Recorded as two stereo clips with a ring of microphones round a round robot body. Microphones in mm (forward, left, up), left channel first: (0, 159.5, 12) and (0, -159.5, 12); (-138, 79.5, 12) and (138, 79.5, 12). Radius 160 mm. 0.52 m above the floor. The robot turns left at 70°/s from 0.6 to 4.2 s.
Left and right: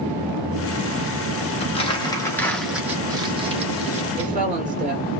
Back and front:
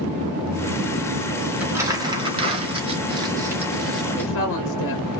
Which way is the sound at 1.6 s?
75° left.